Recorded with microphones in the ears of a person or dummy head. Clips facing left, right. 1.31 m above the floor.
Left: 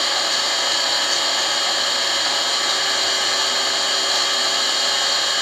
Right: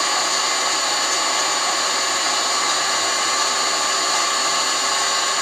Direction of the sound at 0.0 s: 20° left (ahead or behind).